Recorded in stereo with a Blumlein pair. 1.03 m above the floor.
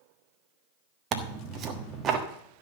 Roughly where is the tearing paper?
Ahead right.